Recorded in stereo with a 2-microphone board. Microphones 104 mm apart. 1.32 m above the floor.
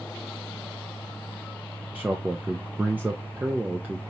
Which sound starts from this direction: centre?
A man speaking, at 1.9 s.